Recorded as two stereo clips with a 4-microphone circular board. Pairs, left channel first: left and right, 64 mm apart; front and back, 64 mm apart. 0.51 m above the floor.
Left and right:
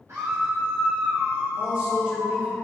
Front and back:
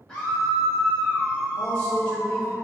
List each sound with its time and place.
0.1 s a scream: 80° right, 1.6 m; by 2.6 s 155° right, 1.7 m
1.6 s a man speaking: 60° right, 1.4 m